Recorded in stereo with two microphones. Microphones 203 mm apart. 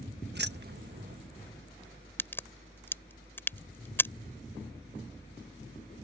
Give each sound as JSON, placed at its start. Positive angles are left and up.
{"t": 0.3, "sound": "keys jangling", "side_deg": -55}
{"t": 2.2, "sound": "a crack", "side_deg": 10}